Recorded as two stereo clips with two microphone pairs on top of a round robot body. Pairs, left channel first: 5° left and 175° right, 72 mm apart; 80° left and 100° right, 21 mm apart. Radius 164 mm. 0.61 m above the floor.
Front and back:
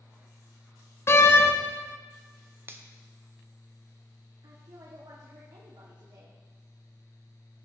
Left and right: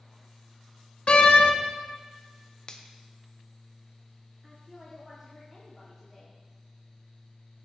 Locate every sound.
1.1 s a door slam: 55° left, 1.1 m
2.7 s a finger snap: 130° left, 1.2 m
4.4 s a woman speaking: 170° left, 2 m